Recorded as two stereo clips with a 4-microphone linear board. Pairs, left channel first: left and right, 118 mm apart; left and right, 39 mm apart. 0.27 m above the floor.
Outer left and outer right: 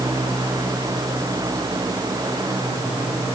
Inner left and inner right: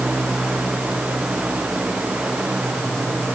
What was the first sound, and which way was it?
Only background noise.